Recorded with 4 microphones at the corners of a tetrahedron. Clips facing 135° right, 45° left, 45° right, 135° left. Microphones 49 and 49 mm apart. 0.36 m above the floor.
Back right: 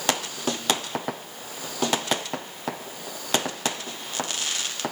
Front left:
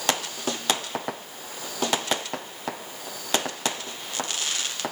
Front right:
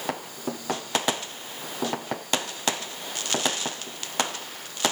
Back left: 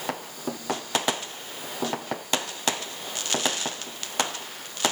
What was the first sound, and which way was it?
Only background noise.